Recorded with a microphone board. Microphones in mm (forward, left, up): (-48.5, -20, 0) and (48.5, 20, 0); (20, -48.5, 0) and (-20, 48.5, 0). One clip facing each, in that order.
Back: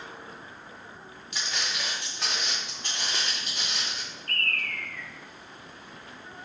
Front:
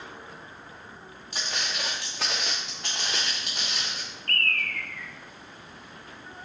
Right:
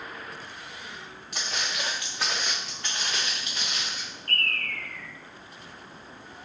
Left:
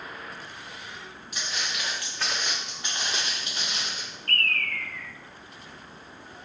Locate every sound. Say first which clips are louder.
1.3 s footsteps: front 1 dB, right 1 dB; 30° right, 0.8 m; by 4.0 s 60° left, 1.5 m
4.3 s a bird: front 3 dB, left 2 dB; 5° right, 0.5 m